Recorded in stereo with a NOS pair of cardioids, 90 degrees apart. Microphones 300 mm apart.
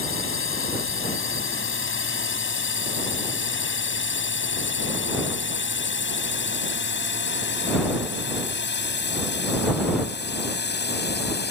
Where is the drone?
40° left; by 11.5 s 35° left.